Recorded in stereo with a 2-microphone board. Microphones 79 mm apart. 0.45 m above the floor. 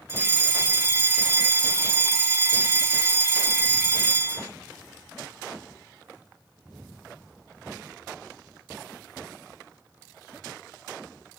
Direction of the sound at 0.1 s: 30° right (ahead or behind).